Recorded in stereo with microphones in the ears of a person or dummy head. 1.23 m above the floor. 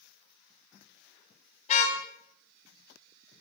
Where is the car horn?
45° left (ahead or behind), 3.5 m.